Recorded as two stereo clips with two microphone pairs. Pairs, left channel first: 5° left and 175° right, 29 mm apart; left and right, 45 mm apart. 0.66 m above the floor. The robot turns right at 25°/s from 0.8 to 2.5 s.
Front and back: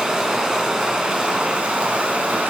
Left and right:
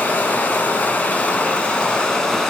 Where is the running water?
130° left, 0.8 m; by 2.5 s 170° left, 0.8 m.